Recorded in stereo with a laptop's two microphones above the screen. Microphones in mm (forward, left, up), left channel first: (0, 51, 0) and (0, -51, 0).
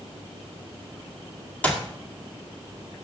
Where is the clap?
15° left (ahead or behind), 2 m.